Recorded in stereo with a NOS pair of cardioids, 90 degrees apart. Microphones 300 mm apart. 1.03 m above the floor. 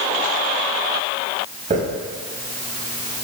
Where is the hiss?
25° right, 5 m.